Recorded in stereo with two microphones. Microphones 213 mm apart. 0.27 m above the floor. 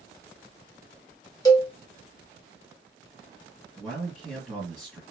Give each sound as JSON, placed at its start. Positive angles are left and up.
{"t": 1.4, "sound": "a cowbell", "side_deg": 15, "distance_m": 0.6}
{"t": 3.8, "sound": "a man speaking", "side_deg": 5, "distance_m": 2.0}